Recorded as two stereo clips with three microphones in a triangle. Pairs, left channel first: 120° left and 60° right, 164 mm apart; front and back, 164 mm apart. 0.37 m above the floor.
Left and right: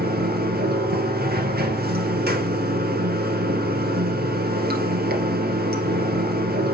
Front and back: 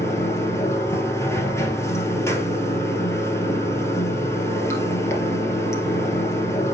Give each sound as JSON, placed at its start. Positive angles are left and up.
{"t": 0.0, "sound": "running water", "azimuth_deg": -75, "distance_m": 1.8}